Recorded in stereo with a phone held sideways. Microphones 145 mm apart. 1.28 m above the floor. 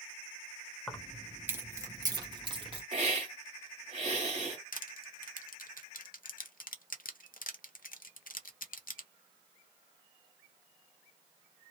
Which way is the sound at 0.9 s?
5° left (ahead or behind).